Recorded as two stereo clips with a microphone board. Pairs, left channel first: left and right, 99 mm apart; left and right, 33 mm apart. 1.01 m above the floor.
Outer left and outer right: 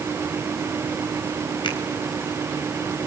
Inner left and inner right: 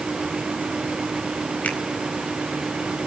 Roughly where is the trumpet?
No trumpet in this recording.